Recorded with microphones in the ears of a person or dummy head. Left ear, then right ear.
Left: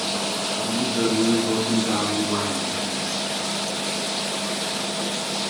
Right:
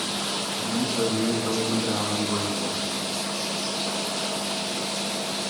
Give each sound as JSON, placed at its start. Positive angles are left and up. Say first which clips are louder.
{"t": 0.6, "sound": "a man speaking", "louder": "left 2 dB", "side_deg": -5, "distance_m": 6.5}